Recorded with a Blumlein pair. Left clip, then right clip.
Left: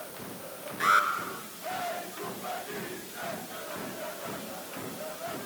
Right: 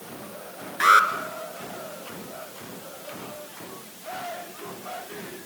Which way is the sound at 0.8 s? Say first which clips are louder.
Right 7 dB; 25° right.